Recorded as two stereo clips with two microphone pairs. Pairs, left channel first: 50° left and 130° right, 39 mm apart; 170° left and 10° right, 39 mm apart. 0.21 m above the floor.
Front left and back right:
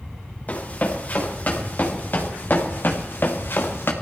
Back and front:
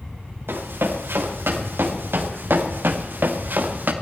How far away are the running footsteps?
About 5 m.